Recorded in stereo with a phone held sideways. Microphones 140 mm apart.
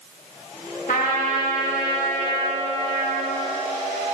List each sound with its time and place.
0.9 s a trumpet: 75° left (ahead or behind), 1.7 m